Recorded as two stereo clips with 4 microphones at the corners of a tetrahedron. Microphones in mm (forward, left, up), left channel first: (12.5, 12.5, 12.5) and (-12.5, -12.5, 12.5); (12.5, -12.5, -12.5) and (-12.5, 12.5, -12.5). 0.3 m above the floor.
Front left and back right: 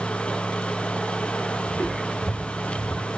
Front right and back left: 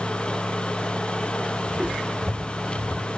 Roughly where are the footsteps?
Ahead left.